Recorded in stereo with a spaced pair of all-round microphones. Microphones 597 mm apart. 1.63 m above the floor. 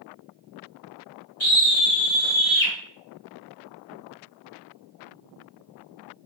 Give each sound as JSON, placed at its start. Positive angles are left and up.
{"t": 1.4, "sound": "a scream", "side_deg": 50, "distance_m": 2.0}